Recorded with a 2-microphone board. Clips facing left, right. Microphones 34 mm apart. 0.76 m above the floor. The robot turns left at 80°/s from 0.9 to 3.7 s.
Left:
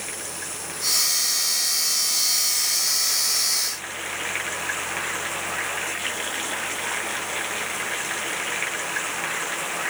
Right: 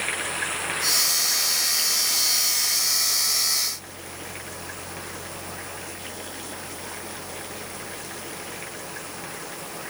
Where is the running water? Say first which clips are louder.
Right 7 dB; 40° right; by 9.9 s 95° left.